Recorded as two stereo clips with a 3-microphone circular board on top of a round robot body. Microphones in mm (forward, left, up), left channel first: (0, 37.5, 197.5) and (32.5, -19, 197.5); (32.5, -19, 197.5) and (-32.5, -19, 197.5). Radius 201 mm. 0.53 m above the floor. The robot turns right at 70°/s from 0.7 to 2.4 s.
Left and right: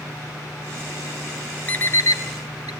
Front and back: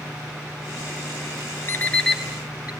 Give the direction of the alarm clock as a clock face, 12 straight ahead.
10 o'clock.